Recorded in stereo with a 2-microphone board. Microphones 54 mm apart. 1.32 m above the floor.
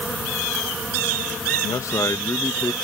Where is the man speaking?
80° left.